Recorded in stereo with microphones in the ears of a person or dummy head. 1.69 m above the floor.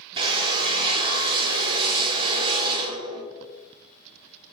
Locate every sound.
0.2 s a drill: 30° right (ahead or behind), 0.5 m